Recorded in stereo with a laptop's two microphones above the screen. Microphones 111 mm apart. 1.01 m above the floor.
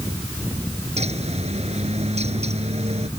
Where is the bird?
70° right (ahead or behind).